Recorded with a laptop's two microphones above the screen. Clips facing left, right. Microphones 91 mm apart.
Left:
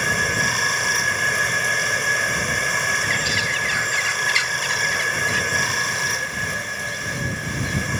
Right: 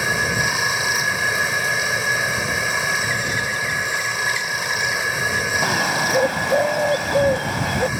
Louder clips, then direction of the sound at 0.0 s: Right 1 dB; 5° right (ahead or behind).